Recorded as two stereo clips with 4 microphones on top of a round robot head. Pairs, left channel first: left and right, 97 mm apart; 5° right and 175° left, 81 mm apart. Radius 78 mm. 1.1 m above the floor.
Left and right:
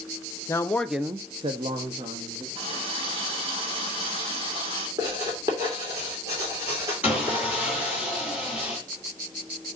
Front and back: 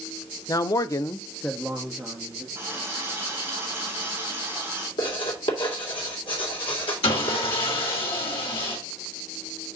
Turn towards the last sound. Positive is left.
turn(degrees=-10)